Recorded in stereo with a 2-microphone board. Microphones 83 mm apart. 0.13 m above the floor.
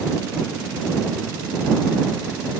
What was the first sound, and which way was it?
Only background noise.